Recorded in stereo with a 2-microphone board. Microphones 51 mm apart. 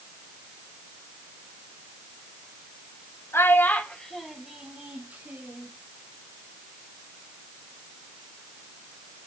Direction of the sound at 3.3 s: 50° left (ahead or behind).